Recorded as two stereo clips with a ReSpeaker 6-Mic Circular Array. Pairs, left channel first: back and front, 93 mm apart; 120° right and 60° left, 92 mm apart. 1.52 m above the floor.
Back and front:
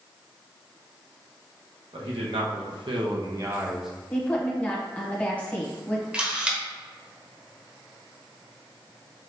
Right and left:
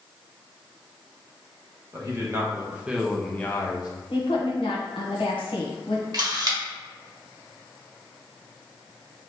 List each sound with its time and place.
1.9 s a man speaking: 5° left, 1.4 m; by 3.9 s 85° right, 0.6 m
4.1 s a woman speaking: 105° right, 1.2 m
6.1 s a camera shutter: 70° left, 1.0 m